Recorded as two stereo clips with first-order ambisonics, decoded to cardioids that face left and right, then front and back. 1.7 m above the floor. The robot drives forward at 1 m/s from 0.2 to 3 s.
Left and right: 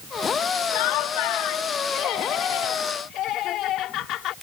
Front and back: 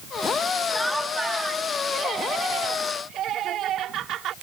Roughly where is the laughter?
Left.